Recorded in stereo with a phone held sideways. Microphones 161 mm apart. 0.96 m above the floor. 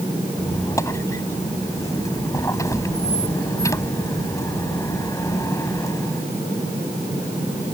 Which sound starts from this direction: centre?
A squeak, at 0.4 s.